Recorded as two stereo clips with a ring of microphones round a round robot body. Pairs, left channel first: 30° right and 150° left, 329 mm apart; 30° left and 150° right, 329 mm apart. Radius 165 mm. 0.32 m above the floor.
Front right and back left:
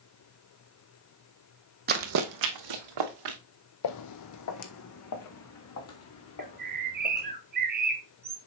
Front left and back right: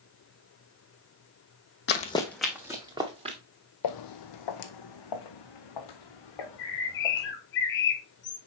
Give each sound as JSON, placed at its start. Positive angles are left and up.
{"t": 1.9, "sound": "running footsteps", "azimuth_deg": 90, "distance_m": 0.7}
{"t": 3.8, "sound": "footsteps", "azimuth_deg": 0, "distance_m": 0.7}
{"t": 6.4, "sound": "a bird", "azimuth_deg": 85, "distance_m": 1.1}